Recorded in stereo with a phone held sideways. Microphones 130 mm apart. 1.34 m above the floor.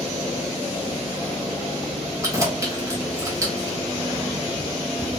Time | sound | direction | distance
2.2 | keys jangling | 25° right (ahead or behind) | 1.0 m